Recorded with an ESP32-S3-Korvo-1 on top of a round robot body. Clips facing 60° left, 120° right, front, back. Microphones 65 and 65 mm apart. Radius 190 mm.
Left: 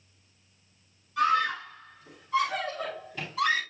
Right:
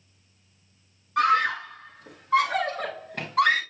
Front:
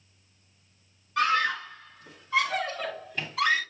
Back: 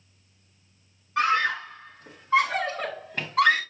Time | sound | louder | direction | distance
1.2 | a scream | right 3 dB, back 2 dB | 120° right | 2.5 m